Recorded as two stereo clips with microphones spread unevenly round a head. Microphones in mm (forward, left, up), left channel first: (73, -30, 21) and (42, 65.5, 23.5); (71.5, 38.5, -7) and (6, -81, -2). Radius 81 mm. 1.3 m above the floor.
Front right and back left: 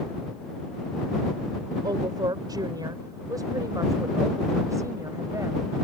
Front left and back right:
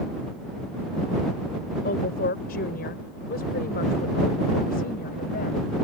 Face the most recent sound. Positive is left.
turn(degrees=50)